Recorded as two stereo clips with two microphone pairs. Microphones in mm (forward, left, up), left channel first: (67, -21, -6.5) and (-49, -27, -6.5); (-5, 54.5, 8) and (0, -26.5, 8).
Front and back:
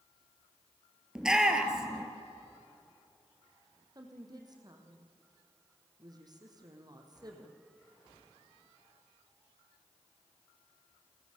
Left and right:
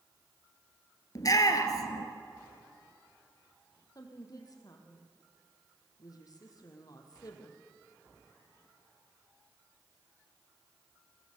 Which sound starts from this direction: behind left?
A woman speaking, at 4.0 s.